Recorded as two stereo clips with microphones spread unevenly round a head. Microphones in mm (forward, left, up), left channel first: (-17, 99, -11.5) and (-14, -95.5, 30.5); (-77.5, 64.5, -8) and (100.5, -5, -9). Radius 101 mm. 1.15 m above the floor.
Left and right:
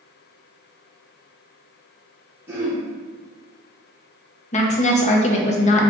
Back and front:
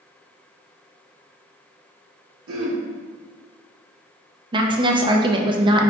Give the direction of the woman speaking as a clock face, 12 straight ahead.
11 o'clock.